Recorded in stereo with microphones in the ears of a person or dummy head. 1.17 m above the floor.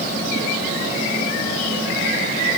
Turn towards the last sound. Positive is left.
No sound to turn to.